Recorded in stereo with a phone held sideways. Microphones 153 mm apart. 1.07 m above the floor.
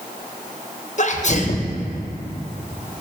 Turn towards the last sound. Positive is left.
turn(degrees=55)  # may be behind; listen again after turning